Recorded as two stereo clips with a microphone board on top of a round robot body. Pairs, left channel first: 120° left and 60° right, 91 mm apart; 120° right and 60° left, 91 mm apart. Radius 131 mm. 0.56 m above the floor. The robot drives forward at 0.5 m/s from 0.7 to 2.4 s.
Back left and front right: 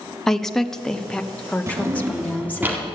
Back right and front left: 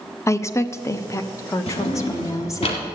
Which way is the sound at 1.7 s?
120° right.